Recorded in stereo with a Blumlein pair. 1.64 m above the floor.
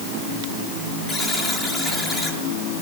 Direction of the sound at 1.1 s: 15° left.